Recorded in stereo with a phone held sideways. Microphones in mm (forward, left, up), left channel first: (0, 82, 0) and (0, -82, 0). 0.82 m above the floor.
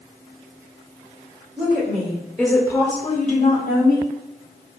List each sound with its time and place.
1.6 s a woman speaking: 40° right (ahead or behind), 1.1 m; by 4.1 s 65° left (ahead or behind), 1.6 m